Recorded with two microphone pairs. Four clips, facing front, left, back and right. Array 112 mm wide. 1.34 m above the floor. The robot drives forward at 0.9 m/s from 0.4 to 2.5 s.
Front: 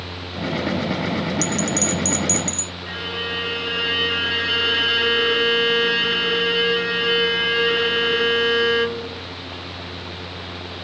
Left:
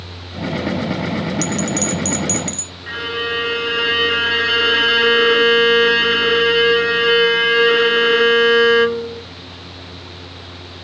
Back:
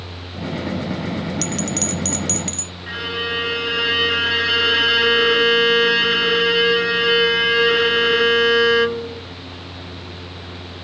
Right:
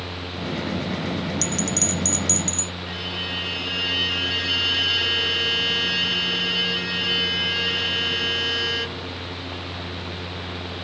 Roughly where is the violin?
Left.